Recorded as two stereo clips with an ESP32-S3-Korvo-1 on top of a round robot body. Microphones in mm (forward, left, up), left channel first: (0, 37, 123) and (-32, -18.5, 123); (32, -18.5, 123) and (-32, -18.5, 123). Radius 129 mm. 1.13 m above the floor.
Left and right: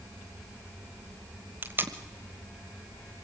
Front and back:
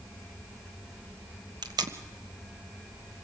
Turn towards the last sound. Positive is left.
turn(degrees=180)